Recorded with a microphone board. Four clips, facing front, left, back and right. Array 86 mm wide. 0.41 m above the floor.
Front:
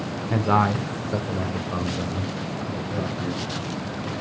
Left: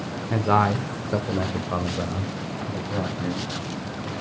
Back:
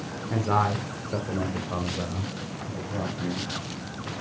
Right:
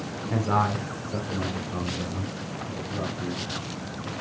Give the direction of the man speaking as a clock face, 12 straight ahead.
11 o'clock.